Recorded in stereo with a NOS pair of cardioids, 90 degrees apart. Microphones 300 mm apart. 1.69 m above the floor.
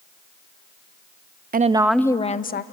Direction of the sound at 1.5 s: 30° right.